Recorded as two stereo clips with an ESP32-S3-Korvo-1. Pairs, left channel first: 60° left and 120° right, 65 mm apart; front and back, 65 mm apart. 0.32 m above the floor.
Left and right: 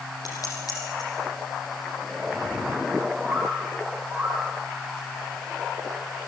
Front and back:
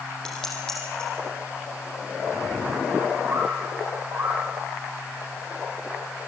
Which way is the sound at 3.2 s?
155° left.